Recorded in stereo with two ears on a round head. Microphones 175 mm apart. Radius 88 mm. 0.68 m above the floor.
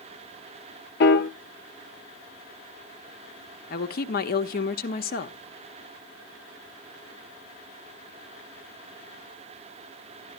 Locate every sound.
1.0 s a piano: 55° left (ahead or behind), 0.9 m
3.7 s a woman speaking: 50° left (ahead or behind), 0.9 m